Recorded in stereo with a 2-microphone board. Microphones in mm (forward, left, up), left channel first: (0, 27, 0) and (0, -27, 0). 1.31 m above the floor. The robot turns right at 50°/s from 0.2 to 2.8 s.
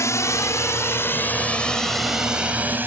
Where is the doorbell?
I don't hear a doorbell.